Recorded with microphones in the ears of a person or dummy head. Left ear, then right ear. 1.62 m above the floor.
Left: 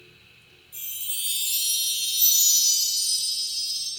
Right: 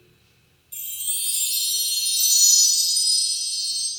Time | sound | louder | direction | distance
0.7 | a chime | right 3 dB | 20° right (ahead or behind) | 0.6 m